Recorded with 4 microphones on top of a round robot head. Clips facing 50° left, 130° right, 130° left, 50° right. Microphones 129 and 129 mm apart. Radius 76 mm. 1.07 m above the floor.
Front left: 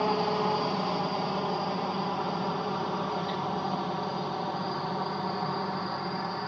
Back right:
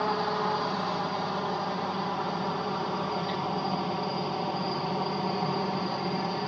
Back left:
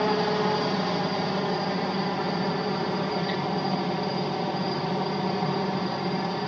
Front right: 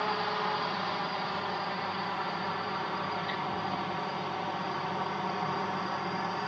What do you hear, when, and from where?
0.0 s a helicopter: 120° left; by 6.5 s 170° left